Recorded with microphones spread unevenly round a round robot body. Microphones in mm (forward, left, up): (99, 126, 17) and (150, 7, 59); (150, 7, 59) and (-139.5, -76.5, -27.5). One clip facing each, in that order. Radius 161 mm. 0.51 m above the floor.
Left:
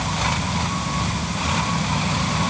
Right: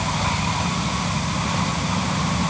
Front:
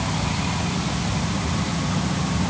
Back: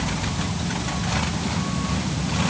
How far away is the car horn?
No car horn in this recording.